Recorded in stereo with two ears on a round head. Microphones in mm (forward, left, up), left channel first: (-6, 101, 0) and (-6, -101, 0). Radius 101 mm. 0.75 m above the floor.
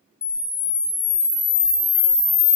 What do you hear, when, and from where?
0.2 s a camera shutter: 5° left (ahead or behind), 0.5 m